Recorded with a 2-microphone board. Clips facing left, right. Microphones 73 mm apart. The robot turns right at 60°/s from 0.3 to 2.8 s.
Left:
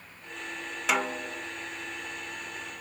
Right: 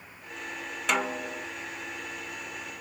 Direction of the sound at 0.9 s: 175° left.